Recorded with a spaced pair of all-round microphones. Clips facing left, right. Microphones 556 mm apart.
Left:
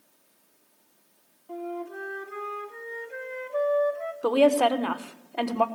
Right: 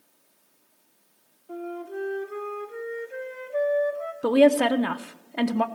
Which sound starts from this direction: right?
A woman speaking, at 4.2 s.